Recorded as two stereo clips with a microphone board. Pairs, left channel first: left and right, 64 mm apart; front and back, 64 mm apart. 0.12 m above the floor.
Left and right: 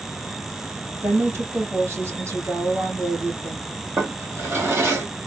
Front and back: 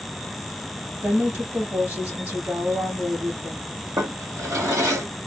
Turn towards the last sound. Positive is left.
turn(degrees=-140)